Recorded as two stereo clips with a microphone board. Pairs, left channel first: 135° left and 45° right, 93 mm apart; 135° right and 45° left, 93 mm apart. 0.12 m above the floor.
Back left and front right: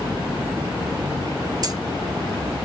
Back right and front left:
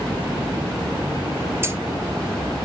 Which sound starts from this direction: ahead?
Keys jangling, at 1.6 s.